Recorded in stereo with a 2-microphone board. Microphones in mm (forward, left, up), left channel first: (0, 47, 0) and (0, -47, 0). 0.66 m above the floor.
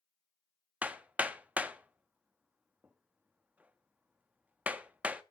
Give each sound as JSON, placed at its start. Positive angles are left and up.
{"t": 0.8, "sound": "hammering", "side_deg": -15, "distance_m": 0.7}